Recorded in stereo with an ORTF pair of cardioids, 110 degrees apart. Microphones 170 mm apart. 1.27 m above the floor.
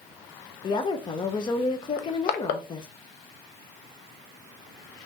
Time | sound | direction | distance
0.6 | a woman speaking | 30° left | 0.6 m
2.0 | crushing | 65° left | 0.6 m